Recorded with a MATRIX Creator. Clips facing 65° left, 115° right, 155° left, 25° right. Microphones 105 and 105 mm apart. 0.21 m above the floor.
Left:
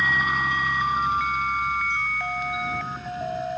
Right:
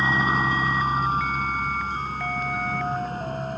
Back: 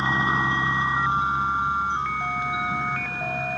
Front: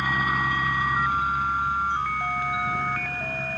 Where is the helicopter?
150° right; by 3.6 s 135° right.